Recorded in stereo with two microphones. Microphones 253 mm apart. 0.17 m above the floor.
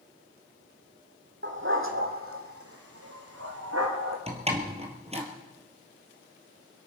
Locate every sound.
1.4 s a dog barking: 50° right (ahead or behind), 2.5 m; by 4.2 s 80° right, 4 m
4.3 s a door slam: 25° right (ahead or behind), 2.5 m